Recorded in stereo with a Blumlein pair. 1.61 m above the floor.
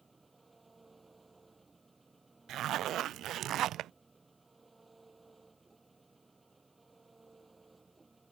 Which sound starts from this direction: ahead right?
A zipper, at 2.5 s.